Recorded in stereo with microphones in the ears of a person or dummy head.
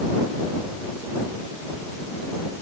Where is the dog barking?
No dog barking in this recording.